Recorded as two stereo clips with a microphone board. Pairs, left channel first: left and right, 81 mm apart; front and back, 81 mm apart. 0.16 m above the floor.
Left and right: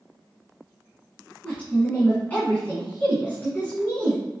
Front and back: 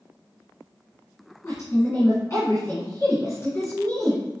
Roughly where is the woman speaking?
Ahead left.